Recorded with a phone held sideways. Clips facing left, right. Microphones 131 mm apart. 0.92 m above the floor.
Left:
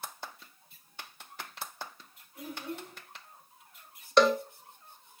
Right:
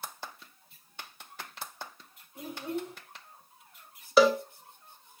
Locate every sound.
2.4 s a child speaking: 25° right (ahead or behind), 4.5 m
4.2 s a cowbell: 5° right (ahead or behind), 0.7 m